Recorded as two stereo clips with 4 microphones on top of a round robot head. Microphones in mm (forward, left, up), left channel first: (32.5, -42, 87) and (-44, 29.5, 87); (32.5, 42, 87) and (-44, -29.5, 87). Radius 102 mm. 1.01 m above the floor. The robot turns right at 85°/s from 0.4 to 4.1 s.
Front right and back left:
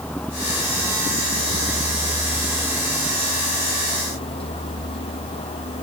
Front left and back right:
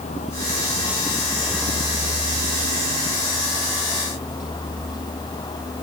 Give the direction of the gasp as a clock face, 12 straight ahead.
I don't hear a gasp.